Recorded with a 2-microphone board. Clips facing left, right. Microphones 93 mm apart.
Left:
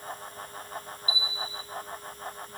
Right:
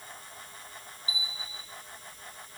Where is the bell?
40° right (ahead or behind), 3.5 m.